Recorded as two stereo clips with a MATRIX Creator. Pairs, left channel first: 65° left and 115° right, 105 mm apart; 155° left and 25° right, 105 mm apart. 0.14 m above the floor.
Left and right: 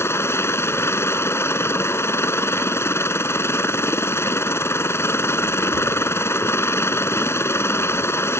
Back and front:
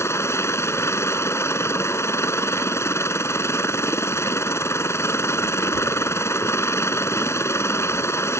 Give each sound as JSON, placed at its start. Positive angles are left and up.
{"t": 0.0, "sound": "a helicopter", "azimuth_deg": 115}